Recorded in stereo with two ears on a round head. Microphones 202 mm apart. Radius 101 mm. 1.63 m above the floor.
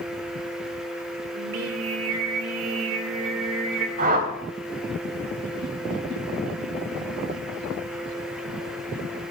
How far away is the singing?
About 2.5 m.